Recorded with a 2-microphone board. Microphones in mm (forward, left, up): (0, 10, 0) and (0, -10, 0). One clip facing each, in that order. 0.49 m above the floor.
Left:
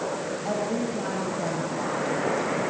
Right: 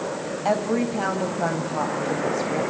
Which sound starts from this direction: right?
A woman speaking, at 0.5 s.